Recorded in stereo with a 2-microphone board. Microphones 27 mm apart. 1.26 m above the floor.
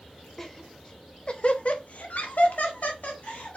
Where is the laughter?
10° left (ahead or behind), 0.9 m; by 3.6 s 65° left (ahead or behind), 1.4 m.